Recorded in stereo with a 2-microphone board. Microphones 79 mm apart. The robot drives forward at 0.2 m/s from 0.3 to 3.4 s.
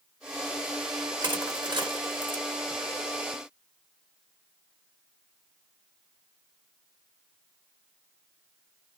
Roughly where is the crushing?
Right.